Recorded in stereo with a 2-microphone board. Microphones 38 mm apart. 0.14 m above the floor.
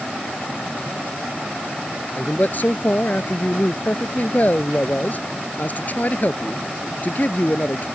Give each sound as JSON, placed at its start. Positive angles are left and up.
{"t": 2.2, "sound": "a man speaking", "side_deg": 45}